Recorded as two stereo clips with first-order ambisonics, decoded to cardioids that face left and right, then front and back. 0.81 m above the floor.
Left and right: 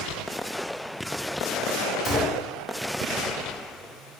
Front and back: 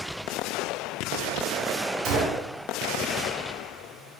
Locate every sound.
2.0 s a gunshot: 165° left, 0.7 m